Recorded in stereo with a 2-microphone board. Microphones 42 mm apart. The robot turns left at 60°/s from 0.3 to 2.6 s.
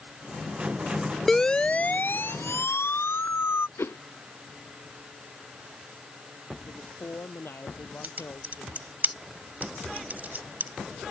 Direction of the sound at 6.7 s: 70° left (ahead or behind).